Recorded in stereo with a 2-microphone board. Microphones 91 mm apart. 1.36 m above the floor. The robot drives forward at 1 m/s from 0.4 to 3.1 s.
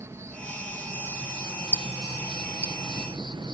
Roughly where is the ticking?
Right.